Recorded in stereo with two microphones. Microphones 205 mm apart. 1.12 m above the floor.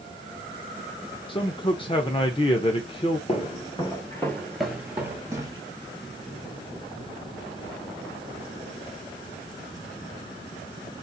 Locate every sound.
1.3 s a man speaking: 25° left (ahead or behind), 0.5 m
3.3 s footsteps: 30° left (ahead or behind), 1.3 m; by 5.6 s 20° right (ahead or behind), 1.5 m